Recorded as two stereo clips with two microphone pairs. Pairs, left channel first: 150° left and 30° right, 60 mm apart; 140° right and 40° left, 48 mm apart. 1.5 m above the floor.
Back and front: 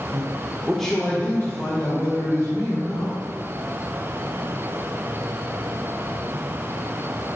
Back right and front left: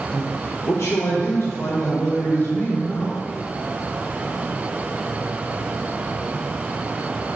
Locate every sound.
0.1 s a man speaking: 65° right, 1.0 m; by 3.1 s 175° left, 3 m